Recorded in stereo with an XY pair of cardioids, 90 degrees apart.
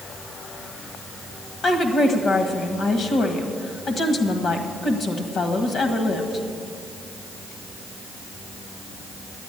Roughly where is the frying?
No frying in this recording.